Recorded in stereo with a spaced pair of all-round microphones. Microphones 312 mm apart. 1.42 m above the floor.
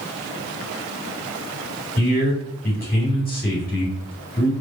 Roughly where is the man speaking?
Left.